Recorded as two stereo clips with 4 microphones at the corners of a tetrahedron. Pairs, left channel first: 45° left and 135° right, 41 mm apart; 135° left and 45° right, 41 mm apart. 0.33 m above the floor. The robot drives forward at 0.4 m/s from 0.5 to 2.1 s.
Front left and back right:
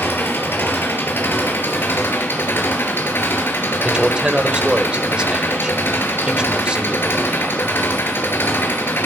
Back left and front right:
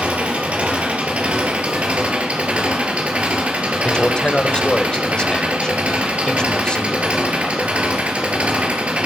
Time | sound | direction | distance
0.0 | an engine running | 15° left | 3.5 m
3.8 | a man speaking | 175° right | 1.2 m